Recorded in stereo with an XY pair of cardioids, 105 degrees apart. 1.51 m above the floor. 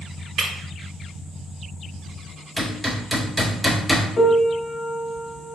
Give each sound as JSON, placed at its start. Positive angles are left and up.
{"t": 0.4, "sound": "breaking glass", "azimuth_deg": -60, "distance_m": 1.9}
{"t": 2.6, "sound": "hammering", "azimuth_deg": -15, "distance_m": 2.0}
{"t": 4.2, "sound": "a piano", "azimuth_deg": 40, "distance_m": 1.0}